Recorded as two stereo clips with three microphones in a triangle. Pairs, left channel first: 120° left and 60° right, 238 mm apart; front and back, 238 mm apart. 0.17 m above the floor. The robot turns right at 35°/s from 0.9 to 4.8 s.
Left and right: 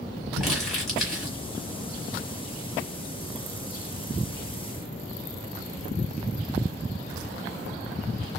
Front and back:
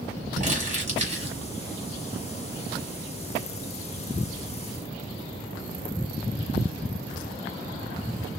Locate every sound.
0.4 s crumpling: 150° right, 1.8 m; by 1.4 s 135° right, 1.8 m